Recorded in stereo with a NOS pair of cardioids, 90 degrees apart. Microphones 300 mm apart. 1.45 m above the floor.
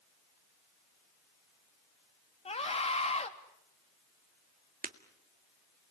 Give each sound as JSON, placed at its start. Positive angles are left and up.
{"t": 2.5, "sound": "a scream", "azimuth_deg": 20, "distance_m": 3.5}
{"t": 4.8, "sound": "breaking glass", "azimuth_deg": -30, "distance_m": 1.9}